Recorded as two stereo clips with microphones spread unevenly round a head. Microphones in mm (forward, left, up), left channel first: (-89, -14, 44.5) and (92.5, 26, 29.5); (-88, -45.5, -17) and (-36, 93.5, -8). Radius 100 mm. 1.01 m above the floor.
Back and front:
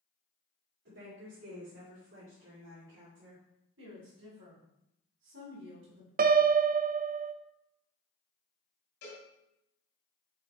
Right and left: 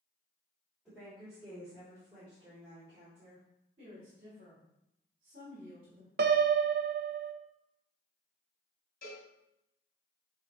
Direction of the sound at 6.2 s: 45° left.